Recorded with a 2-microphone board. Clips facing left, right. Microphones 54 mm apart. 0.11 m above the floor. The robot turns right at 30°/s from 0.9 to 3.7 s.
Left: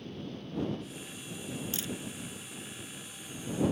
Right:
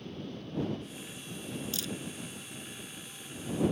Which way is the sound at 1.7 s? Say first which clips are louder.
Even; 25° left (ahead or behind).